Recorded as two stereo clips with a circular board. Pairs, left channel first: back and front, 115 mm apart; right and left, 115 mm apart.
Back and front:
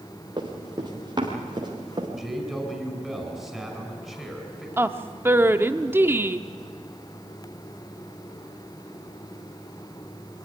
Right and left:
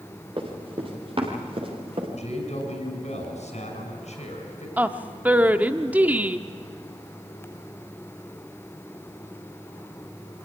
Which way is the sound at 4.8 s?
35° left.